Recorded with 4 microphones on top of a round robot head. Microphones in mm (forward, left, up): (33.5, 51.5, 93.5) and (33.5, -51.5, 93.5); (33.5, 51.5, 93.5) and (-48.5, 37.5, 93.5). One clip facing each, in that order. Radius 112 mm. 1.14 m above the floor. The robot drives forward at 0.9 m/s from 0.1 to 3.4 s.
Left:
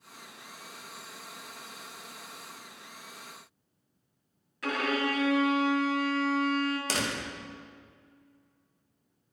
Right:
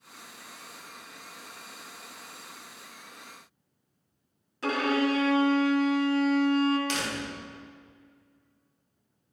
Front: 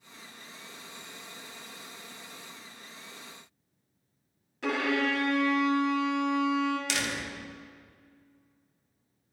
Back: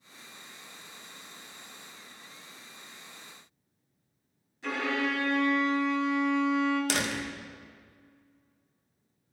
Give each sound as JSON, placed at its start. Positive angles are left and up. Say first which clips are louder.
{"t": 4.6, "sound": "a violin", "louder": "right 4 dB, front 2 dB", "azimuth_deg": -30, "distance_m": 1.2}
{"t": 6.9, "sound": "a door slam", "louder": "even, back 2 dB", "azimuth_deg": 140, "distance_m": 1.1}